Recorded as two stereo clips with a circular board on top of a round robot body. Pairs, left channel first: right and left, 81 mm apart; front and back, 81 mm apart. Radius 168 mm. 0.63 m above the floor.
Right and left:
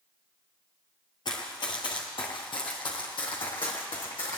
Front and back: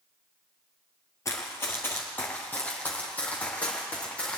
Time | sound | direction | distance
1.2 | running footsteps | 55° right | 1.0 m